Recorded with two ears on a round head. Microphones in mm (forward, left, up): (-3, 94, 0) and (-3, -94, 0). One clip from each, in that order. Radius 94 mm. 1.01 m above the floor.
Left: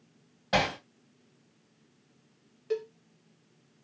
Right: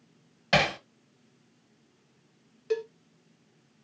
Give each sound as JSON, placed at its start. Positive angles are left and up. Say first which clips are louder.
{"t": 0.5, "sound": "hammering", "louder": "right 3 dB", "side_deg": -60, "distance_m": 1.7}
{"t": 2.7, "sound": "a cowbell", "louder": "right 2 dB", "side_deg": -25, "distance_m": 0.5}